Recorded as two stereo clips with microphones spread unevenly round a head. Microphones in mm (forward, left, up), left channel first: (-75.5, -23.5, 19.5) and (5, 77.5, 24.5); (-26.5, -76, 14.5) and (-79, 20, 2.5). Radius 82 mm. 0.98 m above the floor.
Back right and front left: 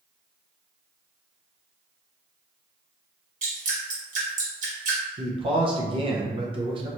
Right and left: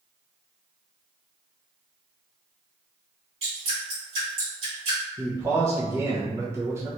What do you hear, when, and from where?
3.4 s dripping: 70° left, 1.9 m
5.2 s a man speaking: 70° left, 0.7 m